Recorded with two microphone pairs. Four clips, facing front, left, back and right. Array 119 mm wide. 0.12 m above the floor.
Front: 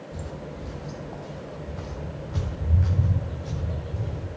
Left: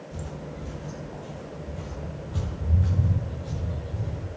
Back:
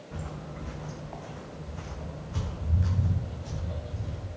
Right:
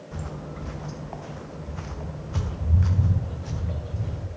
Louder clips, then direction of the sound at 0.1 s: Right 2 dB, front 1 dB; 105° right.